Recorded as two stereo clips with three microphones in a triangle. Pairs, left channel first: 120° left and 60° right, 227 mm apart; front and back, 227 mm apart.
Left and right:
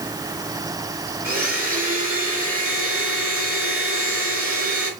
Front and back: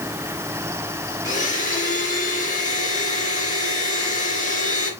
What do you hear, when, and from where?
1.2 s a blender: 55° right, 3 m